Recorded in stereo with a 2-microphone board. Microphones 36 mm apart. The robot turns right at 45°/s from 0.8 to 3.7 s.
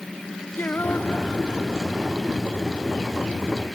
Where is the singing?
110° left; by 2.2 s 175° left.